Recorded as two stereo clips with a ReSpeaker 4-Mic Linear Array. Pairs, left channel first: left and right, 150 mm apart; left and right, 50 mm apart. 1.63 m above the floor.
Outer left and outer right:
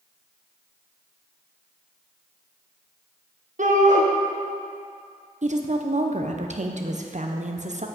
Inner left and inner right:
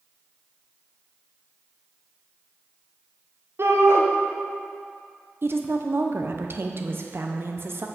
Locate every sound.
3.6 s a shout: 55° right (ahead or behind), 1.2 m
5.4 s a woman speaking: 50° right (ahead or behind), 0.7 m